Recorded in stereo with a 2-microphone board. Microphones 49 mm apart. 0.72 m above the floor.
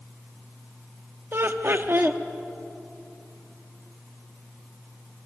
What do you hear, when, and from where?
1.3 s laughter: 50° right (ahead or behind), 0.9 m